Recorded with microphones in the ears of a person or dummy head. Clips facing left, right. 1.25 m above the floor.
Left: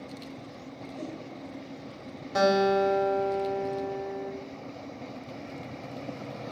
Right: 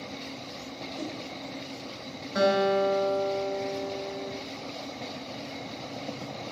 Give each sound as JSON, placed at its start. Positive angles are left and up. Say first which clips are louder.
{"t": 1.0, "sound": "a whoosh", "louder": "right 1 dB", "side_deg": -5, "distance_m": 3.0}
{"t": 2.4, "sound": "a guitar", "louder": "left 1 dB", "side_deg": 85, "distance_m": 3.0}